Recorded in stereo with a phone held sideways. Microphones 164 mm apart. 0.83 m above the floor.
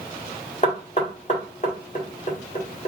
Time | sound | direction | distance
0.6 | knocking | 45° left (ahead or behind) | 1.8 m